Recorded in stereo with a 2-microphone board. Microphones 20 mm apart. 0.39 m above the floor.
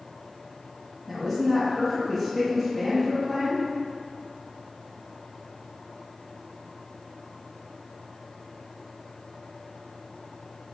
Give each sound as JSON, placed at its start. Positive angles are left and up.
{"t": 1.1, "sound": "a woman speaking", "side_deg": 15, "distance_m": 2.5}